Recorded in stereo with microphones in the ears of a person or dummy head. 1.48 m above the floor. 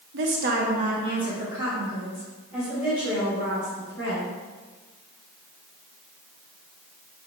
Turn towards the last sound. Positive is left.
turn(degrees=0)  # may be behind; listen again after turning